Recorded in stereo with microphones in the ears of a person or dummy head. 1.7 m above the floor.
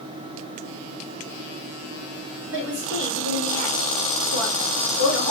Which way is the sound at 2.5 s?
65° right (ahead or behind).